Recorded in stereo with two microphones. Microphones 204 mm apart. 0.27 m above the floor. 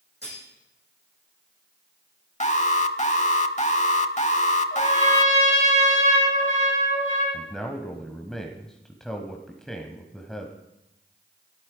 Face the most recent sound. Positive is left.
turn(degrees=0)  # may be behind; listen again after turning